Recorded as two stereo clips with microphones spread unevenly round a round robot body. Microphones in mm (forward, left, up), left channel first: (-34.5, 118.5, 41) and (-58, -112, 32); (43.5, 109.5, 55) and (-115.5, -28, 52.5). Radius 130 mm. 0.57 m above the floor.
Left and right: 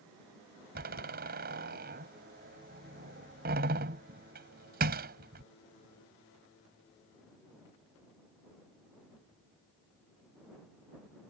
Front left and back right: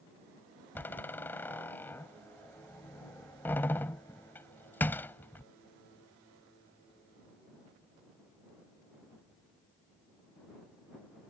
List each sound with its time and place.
0.8 s a door slam: 40° right